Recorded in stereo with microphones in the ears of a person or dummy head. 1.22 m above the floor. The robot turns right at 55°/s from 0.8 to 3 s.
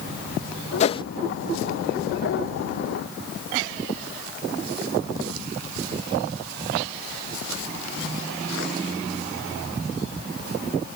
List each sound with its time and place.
0.8 s a whoosh: 40° left (ahead or behind); by 1.0 s 30° left (ahead or behind)